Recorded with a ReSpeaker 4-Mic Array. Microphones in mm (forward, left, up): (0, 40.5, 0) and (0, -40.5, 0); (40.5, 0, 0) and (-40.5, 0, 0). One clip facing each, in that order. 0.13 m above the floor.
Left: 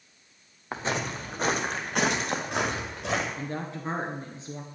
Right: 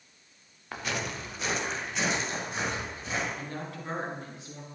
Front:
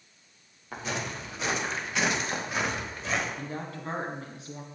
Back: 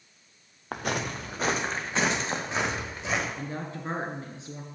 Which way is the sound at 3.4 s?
130° left.